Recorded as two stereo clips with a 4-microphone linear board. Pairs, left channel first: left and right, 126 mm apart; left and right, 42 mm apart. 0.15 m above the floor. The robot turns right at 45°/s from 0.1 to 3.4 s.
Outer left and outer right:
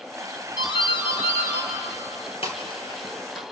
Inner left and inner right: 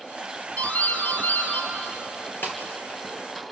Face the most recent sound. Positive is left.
turn(degrees=15)  # may be behind; listen again after turning